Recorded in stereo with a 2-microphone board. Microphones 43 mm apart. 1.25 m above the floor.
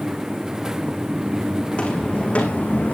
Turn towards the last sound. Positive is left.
turn(degrees=40)  # may be behind; listen again after turning